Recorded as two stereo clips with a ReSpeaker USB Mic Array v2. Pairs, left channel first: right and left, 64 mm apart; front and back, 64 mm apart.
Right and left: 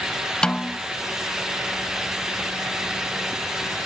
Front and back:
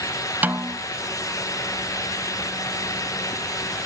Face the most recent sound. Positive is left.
turn(degrees=-155)